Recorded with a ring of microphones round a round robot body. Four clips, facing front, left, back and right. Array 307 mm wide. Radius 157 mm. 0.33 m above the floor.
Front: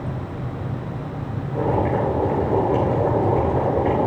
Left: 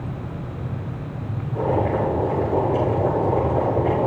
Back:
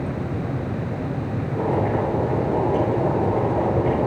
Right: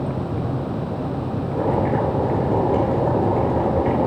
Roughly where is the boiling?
Ahead right.